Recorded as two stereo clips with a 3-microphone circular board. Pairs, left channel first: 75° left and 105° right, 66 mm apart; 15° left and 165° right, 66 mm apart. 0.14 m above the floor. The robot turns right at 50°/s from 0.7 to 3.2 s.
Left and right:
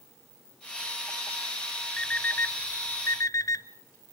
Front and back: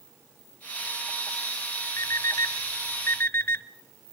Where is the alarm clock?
Straight ahead, 0.8 m; by 3.6 s 60° left, 0.8 m.